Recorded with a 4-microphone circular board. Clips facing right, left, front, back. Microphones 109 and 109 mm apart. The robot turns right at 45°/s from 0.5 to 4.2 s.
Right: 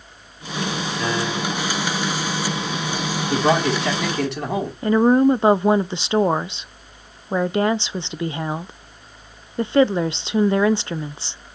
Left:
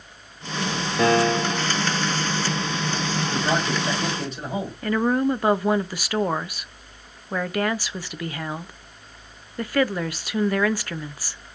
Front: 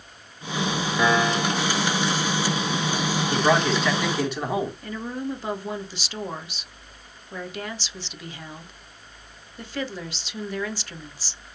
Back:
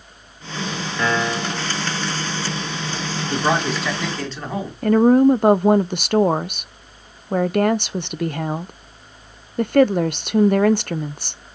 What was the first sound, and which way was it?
A piano, 75° left.